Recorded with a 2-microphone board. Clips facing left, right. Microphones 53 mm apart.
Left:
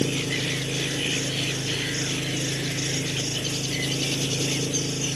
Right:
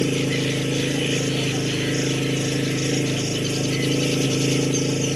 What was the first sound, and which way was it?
An engine running, 40° right (ahead or behind).